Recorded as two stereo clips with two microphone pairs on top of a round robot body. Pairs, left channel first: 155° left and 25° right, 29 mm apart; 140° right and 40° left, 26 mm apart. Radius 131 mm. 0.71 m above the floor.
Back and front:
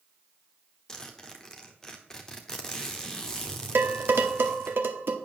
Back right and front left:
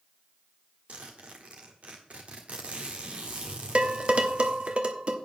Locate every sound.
0.9 s a zipper: 85° left, 1.0 m
3.8 s dishes clattering: 10° right, 1.1 m